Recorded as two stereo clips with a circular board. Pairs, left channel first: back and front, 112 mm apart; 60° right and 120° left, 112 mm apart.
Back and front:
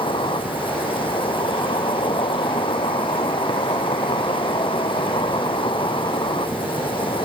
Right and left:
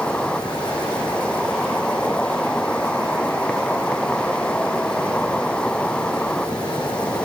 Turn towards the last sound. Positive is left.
turn(degrees=-140)